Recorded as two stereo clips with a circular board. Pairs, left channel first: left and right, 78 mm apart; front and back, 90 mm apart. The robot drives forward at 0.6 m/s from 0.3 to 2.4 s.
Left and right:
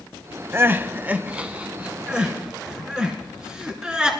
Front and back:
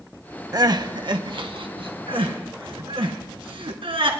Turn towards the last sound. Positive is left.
turn(degrees=-170)